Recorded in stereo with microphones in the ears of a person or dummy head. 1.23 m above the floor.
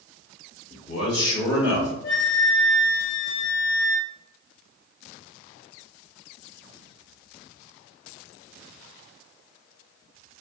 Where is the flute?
20° left (ahead or behind), 0.6 m.